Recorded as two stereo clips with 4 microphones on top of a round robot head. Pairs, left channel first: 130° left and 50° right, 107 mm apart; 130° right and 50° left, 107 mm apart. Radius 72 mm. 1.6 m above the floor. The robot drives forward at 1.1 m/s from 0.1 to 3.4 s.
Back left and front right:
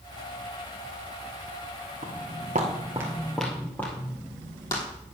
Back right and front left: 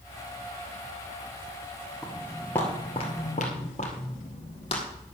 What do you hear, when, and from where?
2.0 s footsteps: 35° right, 3 m; by 4.8 s 170° right, 3.5 m